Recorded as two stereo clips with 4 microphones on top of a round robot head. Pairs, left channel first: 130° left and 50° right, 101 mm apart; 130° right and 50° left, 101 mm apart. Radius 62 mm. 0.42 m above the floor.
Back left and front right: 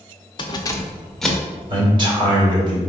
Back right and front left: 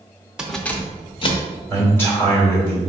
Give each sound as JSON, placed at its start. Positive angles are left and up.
{"t": 0.4, "sound": "keys jangling", "azimuth_deg": 130, "distance_m": 0.7}
{"t": 1.7, "sound": "a man speaking", "azimuth_deg": -65, "distance_m": 1.9}